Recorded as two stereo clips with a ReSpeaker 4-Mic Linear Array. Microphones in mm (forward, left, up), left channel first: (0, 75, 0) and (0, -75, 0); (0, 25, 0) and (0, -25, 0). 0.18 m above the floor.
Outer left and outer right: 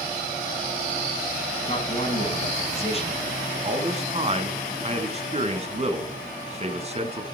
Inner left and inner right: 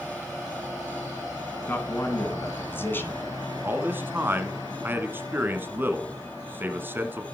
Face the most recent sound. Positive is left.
turn(degrees=-45)  # may be behind; listen again after turning